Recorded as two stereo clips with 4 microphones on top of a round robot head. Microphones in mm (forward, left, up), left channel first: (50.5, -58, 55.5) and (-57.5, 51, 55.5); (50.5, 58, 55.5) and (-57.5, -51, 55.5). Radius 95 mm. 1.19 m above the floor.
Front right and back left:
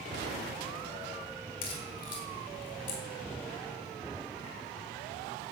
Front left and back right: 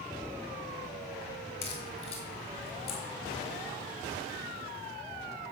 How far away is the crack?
About 2.5 m.